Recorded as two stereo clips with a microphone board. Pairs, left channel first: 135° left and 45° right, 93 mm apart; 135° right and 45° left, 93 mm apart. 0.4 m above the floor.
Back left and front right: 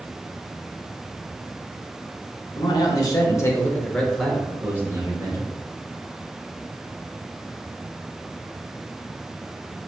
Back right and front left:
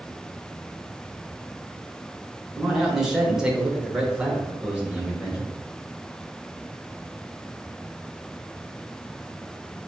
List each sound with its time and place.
2.6 s a man speaking: 130° left, 1.2 m; by 5.5 s 30° right, 1.0 m